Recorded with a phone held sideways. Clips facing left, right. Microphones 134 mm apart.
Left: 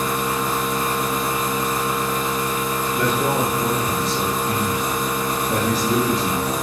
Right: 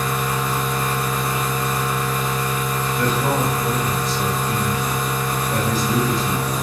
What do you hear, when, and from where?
0.0 s a machine running: 25° left (ahead or behind), 0.8 m
2.9 s a man speaking: 60° left (ahead or behind), 0.8 m